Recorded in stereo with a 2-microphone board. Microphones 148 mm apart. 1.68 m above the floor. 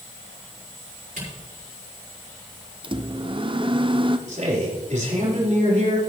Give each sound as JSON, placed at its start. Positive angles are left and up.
{"t": 1.2, "sound": "a camera shutter", "side_deg": -70, "distance_m": 4.5}
{"t": 2.8, "sound": "a microwave", "side_deg": -35, "distance_m": 0.6}
{"t": 4.3, "sound": "a man speaking", "side_deg": -55, "distance_m": 4.0}